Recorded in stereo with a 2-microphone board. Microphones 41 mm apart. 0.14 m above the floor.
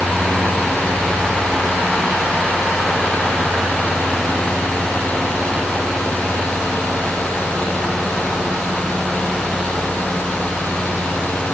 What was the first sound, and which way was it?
Only background noise.